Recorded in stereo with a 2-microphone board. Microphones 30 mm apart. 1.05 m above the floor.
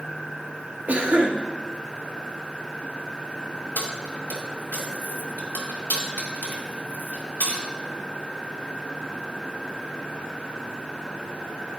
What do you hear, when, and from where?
0.9 s a cough: 50° right (ahead or behind), 1.8 m
3.8 s keys jangling: 65° left (ahead or behind), 2.5 m